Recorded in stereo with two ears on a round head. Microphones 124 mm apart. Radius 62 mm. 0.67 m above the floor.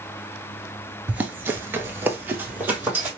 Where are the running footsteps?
10° right (ahead or behind), 0.7 m.